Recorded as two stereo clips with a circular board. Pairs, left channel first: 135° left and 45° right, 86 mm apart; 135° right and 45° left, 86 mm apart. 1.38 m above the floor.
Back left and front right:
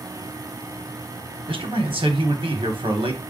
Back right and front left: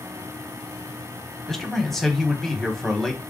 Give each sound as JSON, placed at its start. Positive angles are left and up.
{"t": 1.5, "sound": "a man speaking", "azimuth_deg": -50, "distance_m": 1.2}